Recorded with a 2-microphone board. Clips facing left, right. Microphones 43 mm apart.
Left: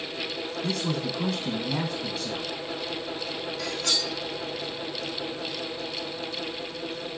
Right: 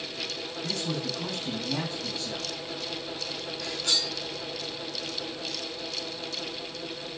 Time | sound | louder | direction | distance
0.6 | a man speaking | left 3 dB | 55° left (ahead or behind) | 4 m
3.6 | cutlery clinking | left 1 dB | 60° left (ahead or behind) | 3 m